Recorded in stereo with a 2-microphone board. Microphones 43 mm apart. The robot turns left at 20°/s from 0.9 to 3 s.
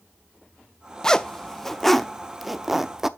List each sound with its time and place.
1.0 s a zipper: 15° left (ahead or behind), 0.5 m; by 3.1 s 10° right (ahead or behind), 0.5 m